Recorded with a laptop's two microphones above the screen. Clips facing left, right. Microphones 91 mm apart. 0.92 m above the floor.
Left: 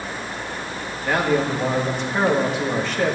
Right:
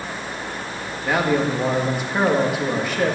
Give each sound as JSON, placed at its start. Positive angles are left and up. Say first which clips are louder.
{"t": 1.0, "sound": "a man speaking", "louder": "even", "side_deg": -10, "distance_m": 1.6}